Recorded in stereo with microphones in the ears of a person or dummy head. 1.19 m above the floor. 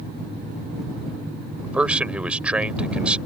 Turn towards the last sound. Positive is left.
turn(degrees=-10)  # may be behind; listen again after turning